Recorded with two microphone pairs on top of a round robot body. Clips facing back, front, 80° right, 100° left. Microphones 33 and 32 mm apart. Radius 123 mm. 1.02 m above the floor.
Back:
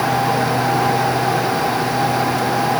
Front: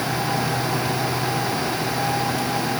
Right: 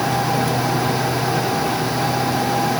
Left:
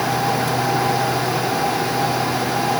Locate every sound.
Only background noise.